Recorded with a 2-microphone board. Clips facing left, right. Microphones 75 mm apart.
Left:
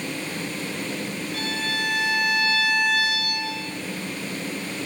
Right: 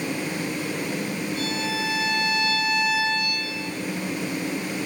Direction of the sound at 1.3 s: 75° left (ahead or behind).